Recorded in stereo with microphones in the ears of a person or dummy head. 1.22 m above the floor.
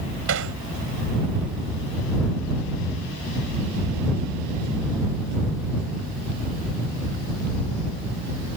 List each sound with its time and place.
0.3 s hammering: 75° right (ahead or behind)